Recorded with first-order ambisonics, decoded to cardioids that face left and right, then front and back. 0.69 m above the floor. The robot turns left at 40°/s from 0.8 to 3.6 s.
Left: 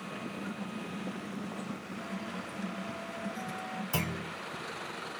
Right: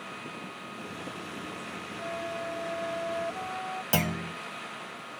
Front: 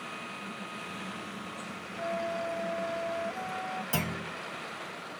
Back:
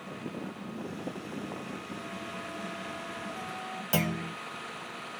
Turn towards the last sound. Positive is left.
turn(degrees=-105)